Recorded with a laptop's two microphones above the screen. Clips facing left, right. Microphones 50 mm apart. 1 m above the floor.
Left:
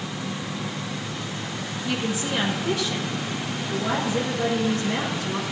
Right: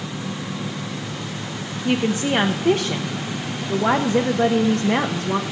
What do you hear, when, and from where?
1.9 s a woman speaking: 50° right (ahead or behind), 0.9 m